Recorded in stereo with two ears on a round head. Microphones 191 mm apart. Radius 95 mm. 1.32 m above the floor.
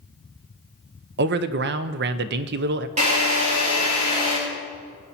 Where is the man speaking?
50° right (ahead or behind), 0.7 m.